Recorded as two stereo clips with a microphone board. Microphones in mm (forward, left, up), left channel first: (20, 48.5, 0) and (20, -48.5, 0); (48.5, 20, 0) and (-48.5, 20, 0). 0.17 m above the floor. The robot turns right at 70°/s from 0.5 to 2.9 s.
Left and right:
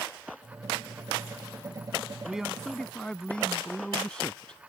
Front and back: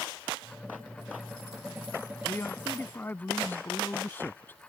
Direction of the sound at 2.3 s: 20° right.